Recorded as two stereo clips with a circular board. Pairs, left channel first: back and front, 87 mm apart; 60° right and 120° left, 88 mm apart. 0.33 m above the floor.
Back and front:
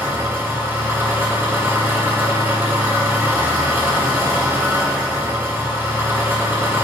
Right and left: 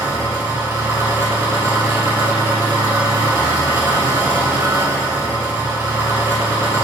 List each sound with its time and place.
0.0 s an engine running: 65° left, 1.7 m